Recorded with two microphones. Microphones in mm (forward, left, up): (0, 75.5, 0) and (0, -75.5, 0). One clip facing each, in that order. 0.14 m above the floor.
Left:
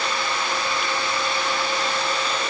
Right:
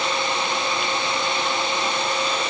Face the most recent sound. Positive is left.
No sound to turn to.